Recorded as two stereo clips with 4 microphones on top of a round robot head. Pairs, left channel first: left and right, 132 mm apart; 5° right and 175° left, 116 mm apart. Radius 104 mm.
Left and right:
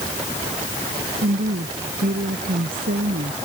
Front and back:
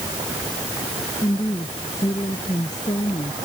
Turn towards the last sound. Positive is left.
turn(degrees=-70)